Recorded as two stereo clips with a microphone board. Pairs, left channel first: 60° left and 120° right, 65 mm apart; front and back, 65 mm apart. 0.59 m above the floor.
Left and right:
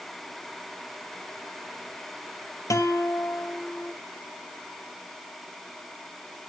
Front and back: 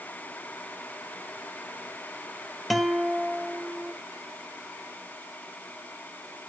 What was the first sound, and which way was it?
A guitar, 90° left.